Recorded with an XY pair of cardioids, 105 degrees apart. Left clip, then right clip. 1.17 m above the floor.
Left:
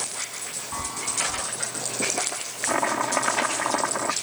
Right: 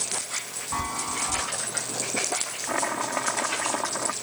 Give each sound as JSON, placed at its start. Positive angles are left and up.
{"t": 0.7, "sound": "a chime", "azimuth_deg": -35}
{"t": 2.7, "sound": "chopping", "azimuth_deg": 20}